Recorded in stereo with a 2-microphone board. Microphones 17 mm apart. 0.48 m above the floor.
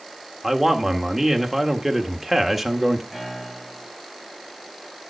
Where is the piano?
20° left (ahead or behind), 10 m.